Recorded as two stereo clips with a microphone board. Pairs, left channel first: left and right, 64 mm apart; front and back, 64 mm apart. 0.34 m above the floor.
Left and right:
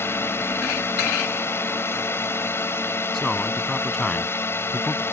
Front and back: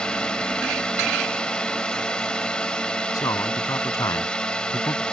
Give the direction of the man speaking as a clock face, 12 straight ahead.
12 o'clock.